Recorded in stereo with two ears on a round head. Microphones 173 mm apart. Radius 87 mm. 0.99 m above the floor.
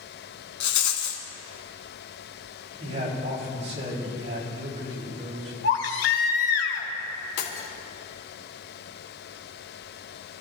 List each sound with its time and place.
0.6 s a rattle: 70° left (ahead or behind), 2.5 m
2.8 s a man speaking: 35° right (ahead or behind), 5.5 m
5.6 s a baby crying: 60° left (ahead or behind), 2.0 m
7.4 s breaking glass: 80° left, 3 m